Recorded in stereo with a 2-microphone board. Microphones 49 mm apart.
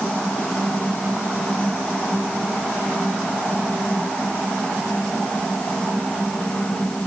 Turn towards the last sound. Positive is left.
No sound to turn to.